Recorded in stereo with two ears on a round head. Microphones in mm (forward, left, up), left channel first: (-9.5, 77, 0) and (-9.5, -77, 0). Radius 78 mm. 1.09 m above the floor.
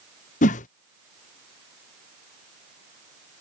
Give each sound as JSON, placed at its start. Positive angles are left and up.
{"t": 0.4, "sound": "a whoosh", "side_deg": 45}